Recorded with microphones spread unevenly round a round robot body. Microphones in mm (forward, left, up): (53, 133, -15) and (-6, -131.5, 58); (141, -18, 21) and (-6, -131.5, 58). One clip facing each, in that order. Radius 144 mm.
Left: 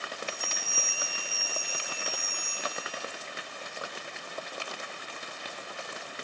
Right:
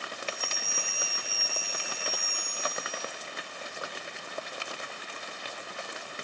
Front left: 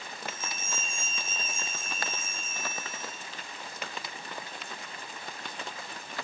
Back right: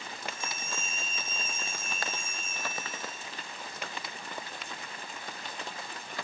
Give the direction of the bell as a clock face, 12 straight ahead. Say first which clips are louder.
Right 1 dB, back right 1 dB; 11 o'clock.